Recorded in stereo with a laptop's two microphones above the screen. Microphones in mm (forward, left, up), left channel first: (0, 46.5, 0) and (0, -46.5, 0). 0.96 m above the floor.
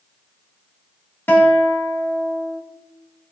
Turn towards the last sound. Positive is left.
turn(degrees=25)  # may be behind; listen again after turning